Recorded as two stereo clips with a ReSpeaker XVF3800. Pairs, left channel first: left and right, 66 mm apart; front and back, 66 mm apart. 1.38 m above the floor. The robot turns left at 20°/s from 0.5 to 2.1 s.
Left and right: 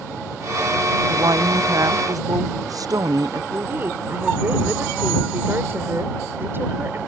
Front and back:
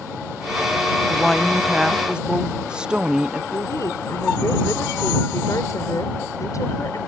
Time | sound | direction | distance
1.1 | a woman speaking | 85° right | ?
3.5 | a woman speaking | 35° right | ?